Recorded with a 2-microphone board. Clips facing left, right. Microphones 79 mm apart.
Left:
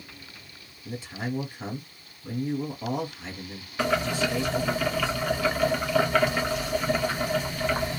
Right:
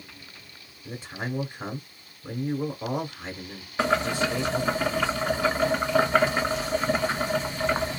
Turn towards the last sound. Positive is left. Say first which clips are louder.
# right 1 dB
turn(degrees=-30)  # may be behind; listen again after turning